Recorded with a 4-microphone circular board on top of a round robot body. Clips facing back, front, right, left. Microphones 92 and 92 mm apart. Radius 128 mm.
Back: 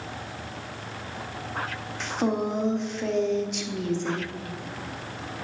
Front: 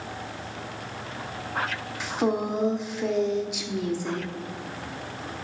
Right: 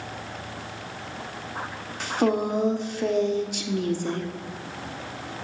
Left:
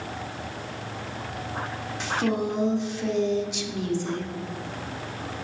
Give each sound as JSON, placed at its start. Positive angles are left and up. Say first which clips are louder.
{"t": 2.0, "sound": "a woman speaking", "louder": "front 1 dB, right 3 dB", "azimuth_deg": -80, "distance_m": 0.9}